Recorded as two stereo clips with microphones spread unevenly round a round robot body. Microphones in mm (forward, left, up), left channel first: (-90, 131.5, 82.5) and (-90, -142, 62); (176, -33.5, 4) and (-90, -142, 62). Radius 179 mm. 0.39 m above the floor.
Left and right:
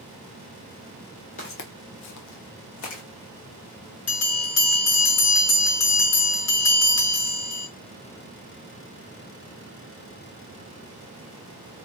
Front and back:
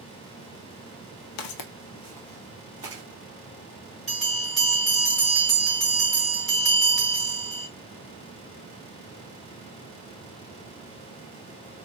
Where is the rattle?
No rattle in this recording.